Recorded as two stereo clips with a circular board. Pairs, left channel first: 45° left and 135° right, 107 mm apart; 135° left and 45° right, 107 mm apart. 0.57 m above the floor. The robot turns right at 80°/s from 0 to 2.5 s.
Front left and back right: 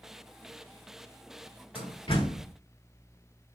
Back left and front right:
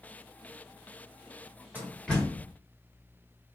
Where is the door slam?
25° left, 1.1 m; by 2.5 s 85° left, 1.1 m.